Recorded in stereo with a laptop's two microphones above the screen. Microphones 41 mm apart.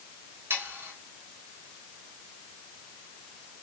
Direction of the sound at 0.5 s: 75° right (ahead or behind).